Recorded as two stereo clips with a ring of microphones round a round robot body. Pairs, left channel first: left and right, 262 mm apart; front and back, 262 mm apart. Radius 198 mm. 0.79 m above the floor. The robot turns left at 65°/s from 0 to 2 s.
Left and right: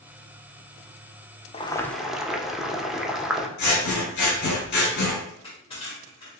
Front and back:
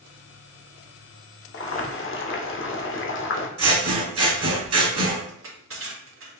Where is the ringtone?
I don't hear a ringtone.